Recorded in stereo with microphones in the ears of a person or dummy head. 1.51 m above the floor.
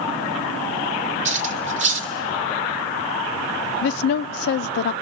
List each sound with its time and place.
1.2 s cutlery clinking: 30° right (ahead or behind), 1.1 m
3.8 s a woman speaking: 45° left (ahead or behind), 0.5 m